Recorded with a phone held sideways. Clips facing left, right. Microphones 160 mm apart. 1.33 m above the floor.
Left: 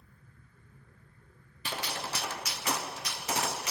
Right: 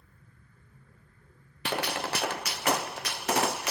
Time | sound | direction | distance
1.6 | a gunshot | 65° right (ahead or behind) | 0.5 m